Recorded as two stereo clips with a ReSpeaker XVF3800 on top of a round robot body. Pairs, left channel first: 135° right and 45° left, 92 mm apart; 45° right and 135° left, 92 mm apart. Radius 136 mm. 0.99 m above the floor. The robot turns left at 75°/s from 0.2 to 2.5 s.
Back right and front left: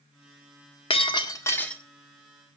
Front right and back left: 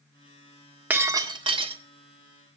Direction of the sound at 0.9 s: 155° right.